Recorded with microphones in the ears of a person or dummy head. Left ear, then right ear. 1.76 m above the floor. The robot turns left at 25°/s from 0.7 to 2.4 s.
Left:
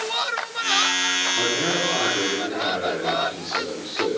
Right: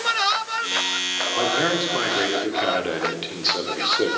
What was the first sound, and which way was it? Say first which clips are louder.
A man speaking: right 1 dB; 35° right (ahead or behind).